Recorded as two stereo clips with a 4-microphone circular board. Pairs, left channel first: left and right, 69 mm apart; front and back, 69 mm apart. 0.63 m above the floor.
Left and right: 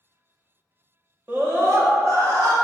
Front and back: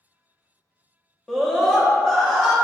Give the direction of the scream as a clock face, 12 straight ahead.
3 o'clock.